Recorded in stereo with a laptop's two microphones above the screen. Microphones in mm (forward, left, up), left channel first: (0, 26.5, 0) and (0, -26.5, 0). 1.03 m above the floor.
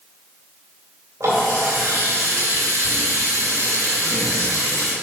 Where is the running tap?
70° right (ahead or behind), 3 m.